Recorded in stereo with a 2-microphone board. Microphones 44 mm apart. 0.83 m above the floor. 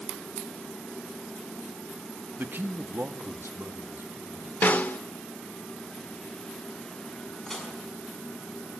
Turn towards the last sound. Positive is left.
turn(degrees=10)  # may be behind; listen again after turning